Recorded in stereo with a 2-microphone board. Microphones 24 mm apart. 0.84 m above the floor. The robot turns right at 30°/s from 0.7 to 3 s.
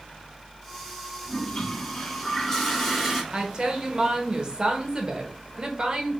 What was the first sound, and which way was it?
A toilet flushing, 120° left.